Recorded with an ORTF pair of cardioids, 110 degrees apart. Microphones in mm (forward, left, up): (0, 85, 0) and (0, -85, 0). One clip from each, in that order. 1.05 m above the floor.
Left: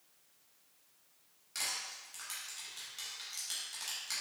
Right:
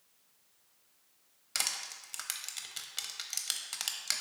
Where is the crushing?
60° right, 0.5 m.